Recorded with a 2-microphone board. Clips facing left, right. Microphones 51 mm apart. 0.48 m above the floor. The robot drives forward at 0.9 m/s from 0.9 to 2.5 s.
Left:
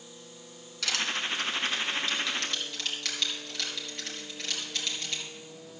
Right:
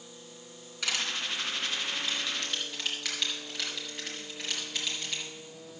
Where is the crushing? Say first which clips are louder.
Left 2 dB; 15° right (ahead or behind), 2.5 m; by 5.2 s 10° right (ahead or behind), 4 m.